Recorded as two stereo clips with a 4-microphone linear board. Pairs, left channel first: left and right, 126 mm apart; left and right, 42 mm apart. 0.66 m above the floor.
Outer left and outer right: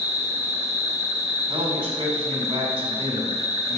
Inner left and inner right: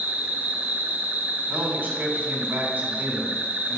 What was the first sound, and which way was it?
An insect, 65° right (ahead or behind).